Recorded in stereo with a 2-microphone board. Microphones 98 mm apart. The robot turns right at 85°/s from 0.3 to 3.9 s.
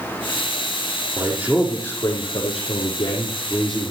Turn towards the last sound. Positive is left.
turn(degrees=-165)